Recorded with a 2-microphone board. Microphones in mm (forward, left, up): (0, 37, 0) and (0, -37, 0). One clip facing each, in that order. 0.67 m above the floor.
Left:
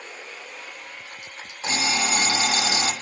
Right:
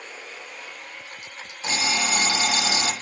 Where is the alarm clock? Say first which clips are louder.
Left 1 dB; 35° left (ahead or behind), 1.0 m.